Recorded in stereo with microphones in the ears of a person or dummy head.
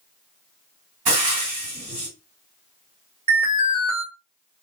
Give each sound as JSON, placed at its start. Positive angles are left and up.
{"t": 1.1, "sound": "frying", "side_deg": -35, "distance_m": 1.9}
{"t": 3.3, "sound": "an alarm", "side_deg": -30, "distance_m": 1.7}